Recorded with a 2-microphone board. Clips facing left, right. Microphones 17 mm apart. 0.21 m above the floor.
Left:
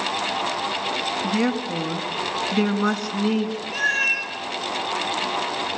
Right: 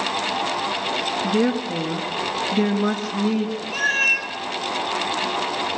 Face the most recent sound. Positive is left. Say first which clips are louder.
# right 2 dB
turn(degrees=10)  # may be behind; listen again after turning